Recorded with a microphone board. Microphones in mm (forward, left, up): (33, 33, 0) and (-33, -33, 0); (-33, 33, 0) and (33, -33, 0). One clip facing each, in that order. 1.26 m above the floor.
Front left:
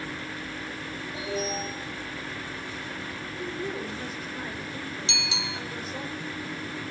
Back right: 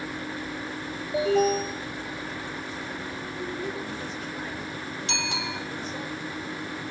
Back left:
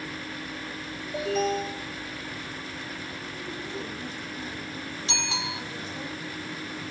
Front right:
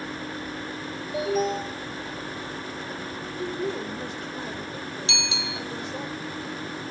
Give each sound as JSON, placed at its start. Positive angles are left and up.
{"t": 1.1, "sound": "an alarm", "azimuth_deg": -130, "distance_m": 6.5}
{"t": 3.4, "sound": "a woman speaking", "azimuth_deg": -40, "distance_m": 4.0}
{"t": 5.1, "sound": "a bicycle bell", "azimuth_deg": -175, "distance_m": 3.0}